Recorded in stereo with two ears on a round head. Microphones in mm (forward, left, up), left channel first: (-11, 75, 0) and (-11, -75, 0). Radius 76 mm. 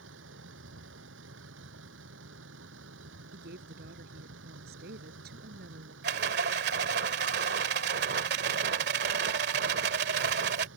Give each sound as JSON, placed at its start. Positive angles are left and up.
{"t": 0.0, "sound": "a vehicle", "side_deg": -80}
{"t": 3.3, "sound": "a woman speaking", "side_deg": -65}
{"t": 6.0, "sound": "a rattle", "side_deg": -75}